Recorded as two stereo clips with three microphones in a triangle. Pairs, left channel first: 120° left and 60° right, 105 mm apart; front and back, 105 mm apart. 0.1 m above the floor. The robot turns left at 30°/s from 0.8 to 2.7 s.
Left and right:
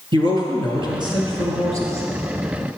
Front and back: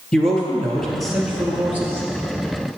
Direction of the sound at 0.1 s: 80° right.